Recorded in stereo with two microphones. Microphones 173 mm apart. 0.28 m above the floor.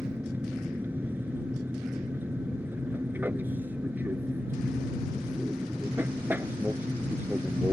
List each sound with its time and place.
0.0 s an aircraft: 10° right (ahead or behind)